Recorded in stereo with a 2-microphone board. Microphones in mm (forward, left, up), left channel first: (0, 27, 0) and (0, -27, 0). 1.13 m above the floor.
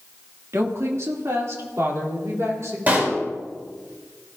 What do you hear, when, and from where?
0.5 s a woman speaking: 65° right (ahead or behind), 2 m; by 2.8 s 60° right (ahead or behind), 4 m
2.9 s a pop: 30° right (ahead or behind), 5 m